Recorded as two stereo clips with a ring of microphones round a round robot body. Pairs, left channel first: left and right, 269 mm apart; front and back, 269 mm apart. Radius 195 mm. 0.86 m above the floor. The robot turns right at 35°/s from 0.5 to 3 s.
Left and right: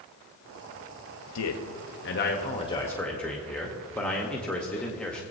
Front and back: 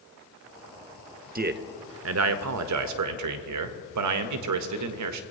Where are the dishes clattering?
I don't hear dishes clattering.